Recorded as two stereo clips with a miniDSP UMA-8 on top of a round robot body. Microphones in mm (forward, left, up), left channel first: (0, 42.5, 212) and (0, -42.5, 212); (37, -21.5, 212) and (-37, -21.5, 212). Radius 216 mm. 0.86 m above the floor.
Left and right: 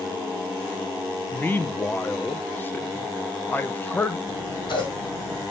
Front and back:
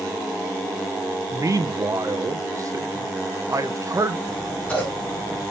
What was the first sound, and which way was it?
A man speaking, 150° left.